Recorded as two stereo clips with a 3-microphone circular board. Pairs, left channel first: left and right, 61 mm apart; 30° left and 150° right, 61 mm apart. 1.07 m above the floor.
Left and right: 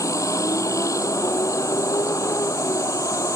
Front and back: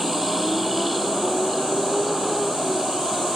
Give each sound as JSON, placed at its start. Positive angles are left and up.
{"t": 0.0, "sound": "a vehicle", "azimuth_deg": 120}